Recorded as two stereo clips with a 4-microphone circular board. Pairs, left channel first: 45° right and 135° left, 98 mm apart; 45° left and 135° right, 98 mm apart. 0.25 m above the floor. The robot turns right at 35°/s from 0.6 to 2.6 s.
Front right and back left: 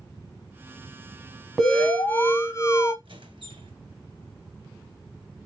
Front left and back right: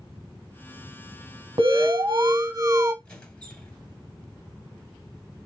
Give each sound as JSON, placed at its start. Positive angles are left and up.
{"t": 1.6, "sound": "an alarm", "azimuth_deg": -130, "distance_m": 1.1}
{"t": 3.0, "sound": "a squeak", "azimuth_deg": 125, "distance_m": 1.6}